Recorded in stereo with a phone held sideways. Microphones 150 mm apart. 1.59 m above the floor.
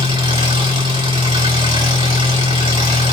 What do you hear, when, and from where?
0.0 s an engine running: 30° right (ahead or behind), 1.7 m